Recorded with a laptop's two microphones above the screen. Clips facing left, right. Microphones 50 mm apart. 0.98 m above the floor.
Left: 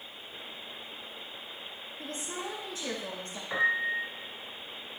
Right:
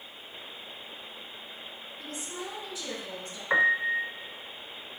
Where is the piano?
40° right (ahead or behind), 1.3 m.